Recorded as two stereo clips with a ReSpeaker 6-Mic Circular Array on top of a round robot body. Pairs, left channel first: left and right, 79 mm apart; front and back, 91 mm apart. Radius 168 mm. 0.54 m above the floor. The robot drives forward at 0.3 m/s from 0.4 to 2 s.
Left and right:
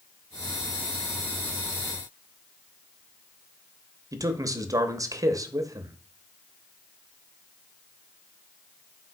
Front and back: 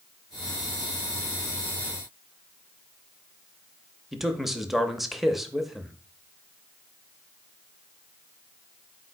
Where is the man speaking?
95° right, 0.8 m.